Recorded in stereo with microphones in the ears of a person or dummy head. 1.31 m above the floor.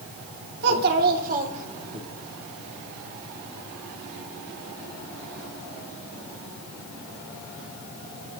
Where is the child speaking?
55° right (ahead or behind), 2.5 m; by 2.0 s 25° right (ahead or behind), 2 m.